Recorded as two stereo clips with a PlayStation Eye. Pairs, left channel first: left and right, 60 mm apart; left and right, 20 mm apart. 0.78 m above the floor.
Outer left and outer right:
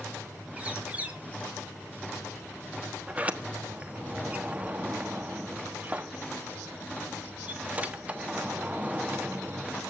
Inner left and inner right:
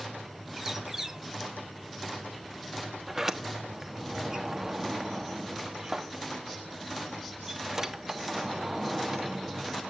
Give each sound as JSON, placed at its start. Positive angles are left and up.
{"t": 0.6, "sound": "a bird", "side_deg": -25, "distance_m": 2.5}
{"t": 3.1, "sound": "a sliding door", "side_deg": -25, "distance_m": 1.2}